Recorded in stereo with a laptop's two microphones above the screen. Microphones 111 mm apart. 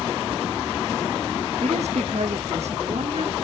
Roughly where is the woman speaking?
Right.